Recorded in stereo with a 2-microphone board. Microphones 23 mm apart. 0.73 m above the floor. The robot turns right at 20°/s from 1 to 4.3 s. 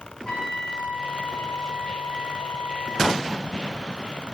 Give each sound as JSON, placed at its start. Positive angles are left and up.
{"t": 0.2, "sound": "a trumpet", "azimuth_deg": 35, "distance_m": 1.0}